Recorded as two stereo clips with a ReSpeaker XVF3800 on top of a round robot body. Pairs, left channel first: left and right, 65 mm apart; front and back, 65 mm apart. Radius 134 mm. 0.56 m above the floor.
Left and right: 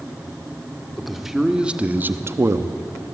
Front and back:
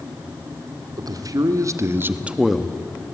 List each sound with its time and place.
1.0 s a man speaking: straight behind, 2 m; by 3.1 s 55° right, 1.5 m